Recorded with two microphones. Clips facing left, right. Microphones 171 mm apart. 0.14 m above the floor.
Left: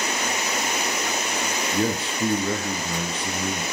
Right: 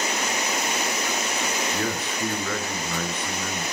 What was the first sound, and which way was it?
A man speaking, 30° left (ahead or behind).